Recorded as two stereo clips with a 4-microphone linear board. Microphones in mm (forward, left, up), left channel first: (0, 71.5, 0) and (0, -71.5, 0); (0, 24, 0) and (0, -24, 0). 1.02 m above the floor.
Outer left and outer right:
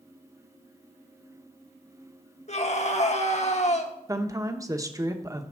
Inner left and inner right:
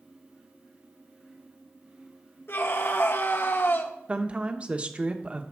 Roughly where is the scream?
Left.